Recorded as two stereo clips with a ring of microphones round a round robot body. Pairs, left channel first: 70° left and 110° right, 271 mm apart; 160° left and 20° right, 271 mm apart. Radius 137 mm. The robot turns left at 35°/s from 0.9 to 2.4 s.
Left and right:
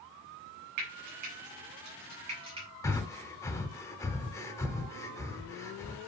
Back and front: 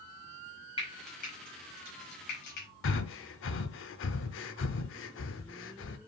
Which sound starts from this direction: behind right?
Frying, at 0.8 s.